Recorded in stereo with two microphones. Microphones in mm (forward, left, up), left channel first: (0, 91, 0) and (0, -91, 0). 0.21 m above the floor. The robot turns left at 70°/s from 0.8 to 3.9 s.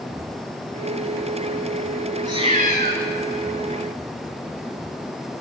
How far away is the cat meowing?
About 0.6 m.